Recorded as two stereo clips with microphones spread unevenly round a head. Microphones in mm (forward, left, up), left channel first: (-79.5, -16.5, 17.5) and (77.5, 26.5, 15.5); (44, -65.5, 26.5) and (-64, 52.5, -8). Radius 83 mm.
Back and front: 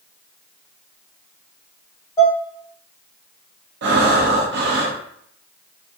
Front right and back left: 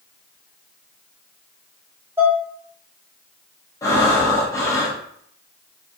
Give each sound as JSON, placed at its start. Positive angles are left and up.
{"t": 2.2, "sound": "dishes clattering", "azimuth_deg": -140, "distance_m": 0.5}
{"t": 3.8, "sound": "breathing", "azimuth_deg": 30, "distance_m": 0.6}